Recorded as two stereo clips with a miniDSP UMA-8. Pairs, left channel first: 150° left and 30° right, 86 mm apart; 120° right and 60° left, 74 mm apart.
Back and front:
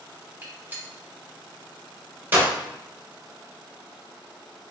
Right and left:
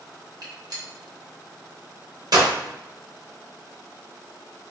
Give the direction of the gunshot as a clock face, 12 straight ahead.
11 o'clock.